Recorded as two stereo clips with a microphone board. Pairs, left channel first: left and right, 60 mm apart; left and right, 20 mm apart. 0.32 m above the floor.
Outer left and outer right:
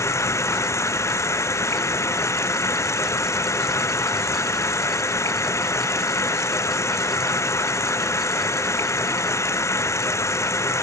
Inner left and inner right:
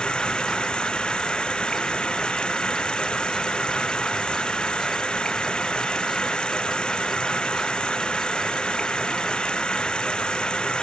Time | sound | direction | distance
0.0 | running water | 50° left (ahead or behind) | ?